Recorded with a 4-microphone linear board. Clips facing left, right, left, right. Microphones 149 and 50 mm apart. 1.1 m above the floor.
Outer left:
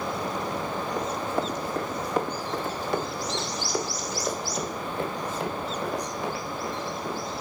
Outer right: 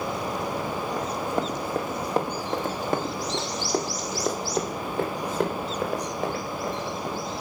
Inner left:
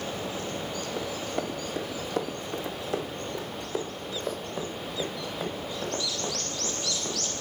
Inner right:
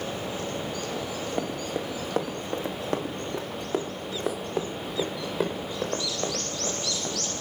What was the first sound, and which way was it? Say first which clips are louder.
Running footsteps: even, even; 5° right (ahead or behind).